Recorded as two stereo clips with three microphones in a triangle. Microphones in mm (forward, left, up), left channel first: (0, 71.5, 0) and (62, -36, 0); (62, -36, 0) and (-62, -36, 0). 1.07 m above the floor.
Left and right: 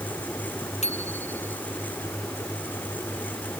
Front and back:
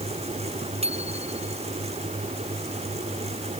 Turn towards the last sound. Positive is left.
turn(degrees=145)